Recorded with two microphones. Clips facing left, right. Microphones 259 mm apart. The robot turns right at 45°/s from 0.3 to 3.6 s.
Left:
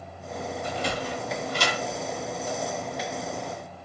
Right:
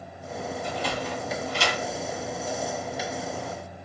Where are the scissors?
No scissors in this recording.